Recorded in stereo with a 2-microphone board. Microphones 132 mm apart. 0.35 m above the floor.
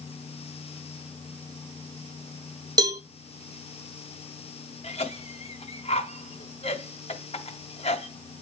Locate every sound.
2.8 s a cowbell: 30° right (ahead or behind), 0.6 m
4.8 s a cough: 55° left (ahead or behind), 1.8 m